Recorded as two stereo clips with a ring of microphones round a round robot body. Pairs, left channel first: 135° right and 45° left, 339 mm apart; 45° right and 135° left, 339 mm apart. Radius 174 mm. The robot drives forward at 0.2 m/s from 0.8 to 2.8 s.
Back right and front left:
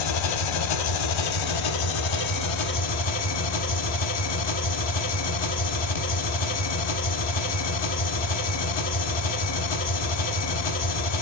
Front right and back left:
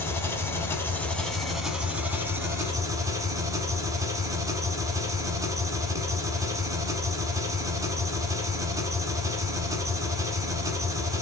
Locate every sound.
0.0 s an engine running: 130° right, 0.8 m; by 11.2 s 145° right, 1.1 m